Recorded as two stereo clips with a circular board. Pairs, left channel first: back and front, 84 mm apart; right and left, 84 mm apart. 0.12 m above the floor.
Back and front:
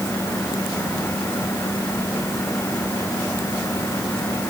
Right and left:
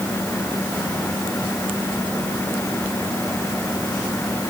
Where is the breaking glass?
No breaking glass in this recording.